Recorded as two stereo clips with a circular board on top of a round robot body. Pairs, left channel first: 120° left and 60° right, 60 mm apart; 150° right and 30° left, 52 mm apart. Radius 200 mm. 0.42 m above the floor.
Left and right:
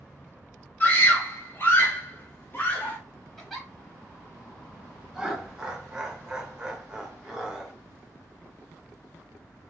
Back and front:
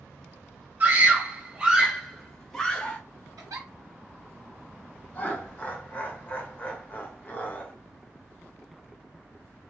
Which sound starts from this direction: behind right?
Laughter, at 5.1 s.